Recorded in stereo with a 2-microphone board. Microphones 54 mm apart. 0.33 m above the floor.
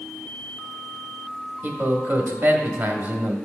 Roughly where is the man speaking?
Right.